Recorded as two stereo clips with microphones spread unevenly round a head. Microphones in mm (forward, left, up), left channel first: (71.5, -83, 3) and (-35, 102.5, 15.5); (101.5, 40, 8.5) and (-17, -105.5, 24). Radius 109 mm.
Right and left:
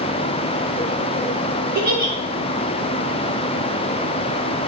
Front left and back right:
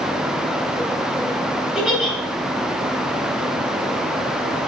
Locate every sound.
1.8 s a giggle: 145° left, 3 m